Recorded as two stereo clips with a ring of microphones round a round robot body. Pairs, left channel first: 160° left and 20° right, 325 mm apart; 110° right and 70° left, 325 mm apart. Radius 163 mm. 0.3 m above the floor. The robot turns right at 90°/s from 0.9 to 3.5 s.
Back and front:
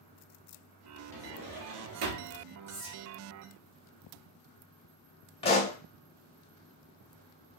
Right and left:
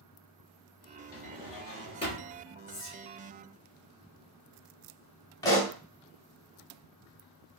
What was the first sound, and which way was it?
A drawer, 120° right.